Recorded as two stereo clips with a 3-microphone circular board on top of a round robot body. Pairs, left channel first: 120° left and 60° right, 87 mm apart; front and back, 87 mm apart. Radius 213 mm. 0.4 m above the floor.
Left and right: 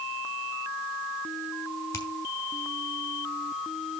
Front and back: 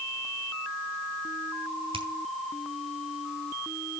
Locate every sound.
1.9 s a finger snap: 170° left, 3.5 m